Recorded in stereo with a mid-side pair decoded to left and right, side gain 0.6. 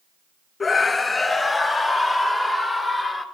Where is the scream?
25° left, 1.1 m; by 3.2 s 5° left, 3.5 m.